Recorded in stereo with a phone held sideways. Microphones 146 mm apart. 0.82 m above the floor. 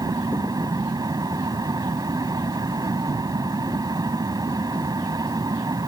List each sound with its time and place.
0.0 s a fan: 25° right (ahead or behind)